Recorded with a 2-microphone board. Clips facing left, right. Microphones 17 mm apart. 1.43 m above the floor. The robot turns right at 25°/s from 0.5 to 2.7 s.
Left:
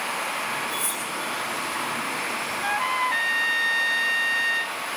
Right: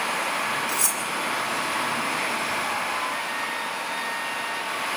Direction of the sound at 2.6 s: 45° left (ahead or behind).